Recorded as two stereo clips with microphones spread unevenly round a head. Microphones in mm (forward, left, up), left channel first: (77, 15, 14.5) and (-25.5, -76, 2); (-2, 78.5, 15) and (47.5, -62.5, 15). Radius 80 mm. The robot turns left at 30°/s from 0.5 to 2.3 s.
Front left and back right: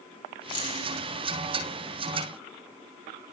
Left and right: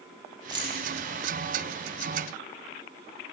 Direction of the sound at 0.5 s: 10° right.